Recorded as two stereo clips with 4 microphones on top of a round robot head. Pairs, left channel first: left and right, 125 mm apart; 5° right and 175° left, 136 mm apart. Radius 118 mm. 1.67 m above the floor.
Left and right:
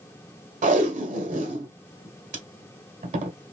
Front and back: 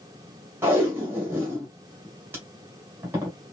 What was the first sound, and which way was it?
Tape being pulled, 110° right.